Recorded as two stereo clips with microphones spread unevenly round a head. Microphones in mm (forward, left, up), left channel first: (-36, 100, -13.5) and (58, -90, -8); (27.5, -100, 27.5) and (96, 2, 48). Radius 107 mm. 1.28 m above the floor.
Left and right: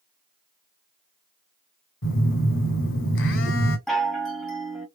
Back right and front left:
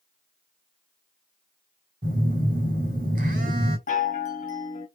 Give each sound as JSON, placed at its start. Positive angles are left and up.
{"t": 2.0, "sound": "a phone buzzing", "azimuth_deg": 85, "distance_m": 2.0}
{"t": 3.9, "sound": "a chime", "azimuth_deg": -155, "distance_m": 1.3}